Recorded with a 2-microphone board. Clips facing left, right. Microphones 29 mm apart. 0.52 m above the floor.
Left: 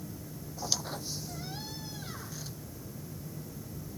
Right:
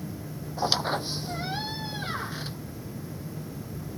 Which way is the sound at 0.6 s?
45° right (ahead or behind).